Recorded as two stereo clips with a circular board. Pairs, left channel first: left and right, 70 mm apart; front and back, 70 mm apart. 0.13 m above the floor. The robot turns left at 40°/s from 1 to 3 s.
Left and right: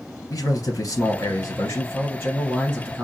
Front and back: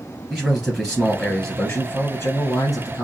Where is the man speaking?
80° left, 1.8 m; by 3.0 s straight ahead, 1.8 m.